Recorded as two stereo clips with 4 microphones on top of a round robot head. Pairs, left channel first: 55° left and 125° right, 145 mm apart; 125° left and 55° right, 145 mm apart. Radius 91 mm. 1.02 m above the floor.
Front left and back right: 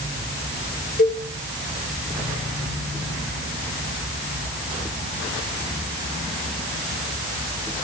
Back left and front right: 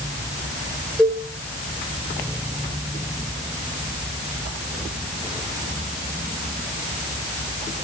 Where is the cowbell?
40° left, 5.5 m.